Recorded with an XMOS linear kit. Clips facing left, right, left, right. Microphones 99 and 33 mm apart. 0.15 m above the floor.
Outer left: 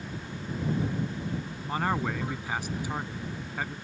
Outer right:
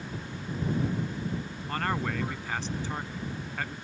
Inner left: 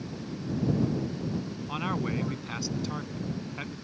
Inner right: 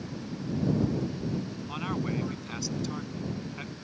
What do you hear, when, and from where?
1.7 s a man speaking: 10° left (ahead or behind)